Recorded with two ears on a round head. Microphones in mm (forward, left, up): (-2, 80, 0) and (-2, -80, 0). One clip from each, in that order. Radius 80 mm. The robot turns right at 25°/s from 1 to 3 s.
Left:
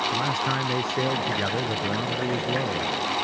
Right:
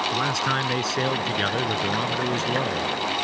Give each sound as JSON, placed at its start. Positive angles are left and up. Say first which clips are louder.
{"t": 0.1, "sound": "a man speaking", "louder": "right 2 dB", "azimuth_deg": -95}